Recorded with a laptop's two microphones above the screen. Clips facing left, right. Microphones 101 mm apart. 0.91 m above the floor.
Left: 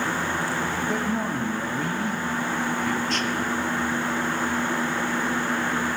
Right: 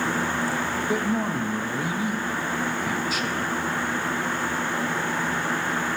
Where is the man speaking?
5° right (ahead or behind), 0.5 m.